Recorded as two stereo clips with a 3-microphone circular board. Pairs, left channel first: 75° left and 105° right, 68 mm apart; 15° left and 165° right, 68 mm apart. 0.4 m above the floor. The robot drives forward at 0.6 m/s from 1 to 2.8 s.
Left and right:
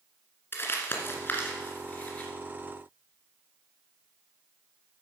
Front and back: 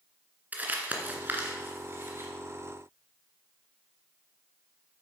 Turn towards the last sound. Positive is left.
turn(degrees=150)